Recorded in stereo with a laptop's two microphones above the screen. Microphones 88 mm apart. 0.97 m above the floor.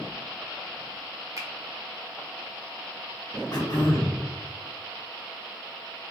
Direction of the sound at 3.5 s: 50° left (ahead or behind).